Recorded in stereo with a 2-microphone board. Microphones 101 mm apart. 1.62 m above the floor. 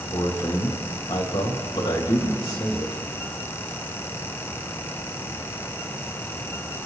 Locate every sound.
0.1 s a man speaking: 40° left (ahead or behind), 3 m